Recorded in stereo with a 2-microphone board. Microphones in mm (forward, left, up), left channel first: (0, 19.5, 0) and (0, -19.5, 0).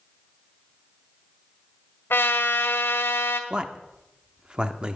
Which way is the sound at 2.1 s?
75° left (ahead or behind).